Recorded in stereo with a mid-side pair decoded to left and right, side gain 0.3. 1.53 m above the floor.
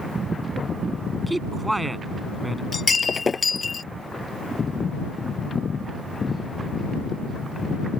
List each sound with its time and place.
1.3 s a man speaking: 15° right
2.7 s breaking glass: 45° left